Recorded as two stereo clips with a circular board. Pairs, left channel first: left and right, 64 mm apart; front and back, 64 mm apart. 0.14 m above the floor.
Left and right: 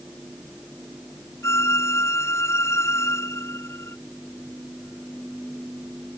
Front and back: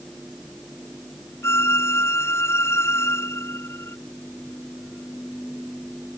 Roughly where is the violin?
Ahead left.